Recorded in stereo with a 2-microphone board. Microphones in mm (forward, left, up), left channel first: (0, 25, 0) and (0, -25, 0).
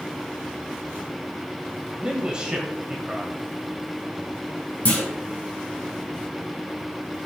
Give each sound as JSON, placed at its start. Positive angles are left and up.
{"t": 2.0, "sound": "a man speaking", "side_deg": -15, "distance_m": 1.2}
{"t": 4.8, "sound": "a clunk", "side_deg": 25, "distance_m": 3.0}